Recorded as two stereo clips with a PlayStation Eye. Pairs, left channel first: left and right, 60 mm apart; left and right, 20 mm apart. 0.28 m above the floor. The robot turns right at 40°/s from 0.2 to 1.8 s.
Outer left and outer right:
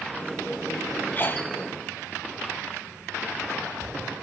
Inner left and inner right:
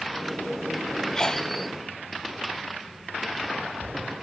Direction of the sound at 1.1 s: 35° left (ahead or behind).